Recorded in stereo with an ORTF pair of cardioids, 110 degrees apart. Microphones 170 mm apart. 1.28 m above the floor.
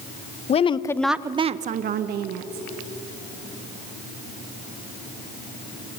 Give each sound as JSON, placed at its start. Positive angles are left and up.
{"t": 0.5, "sound": "a woman speaking", "azimuth_deg": 40, "distance_m": 0.9}